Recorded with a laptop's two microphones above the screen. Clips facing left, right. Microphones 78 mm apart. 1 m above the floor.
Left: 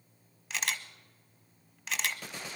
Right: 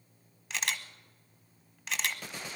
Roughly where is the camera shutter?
Centre.